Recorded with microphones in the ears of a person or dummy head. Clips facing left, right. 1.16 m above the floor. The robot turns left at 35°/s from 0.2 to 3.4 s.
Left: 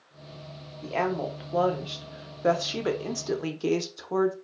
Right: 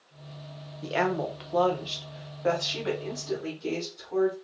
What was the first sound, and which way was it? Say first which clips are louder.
A woman speaking: right 1 dB; 155° right.